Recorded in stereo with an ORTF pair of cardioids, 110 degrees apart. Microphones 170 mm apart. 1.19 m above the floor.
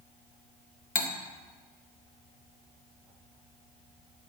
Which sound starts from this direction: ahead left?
Cutlery clinking, at 0.9 s.